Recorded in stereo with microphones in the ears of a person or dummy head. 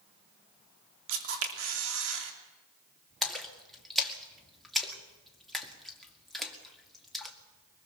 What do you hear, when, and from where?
1.1 s a camera shutter: 80° right, 3 m
3.2 s a splash: 5° left (ahead or behind), 2 m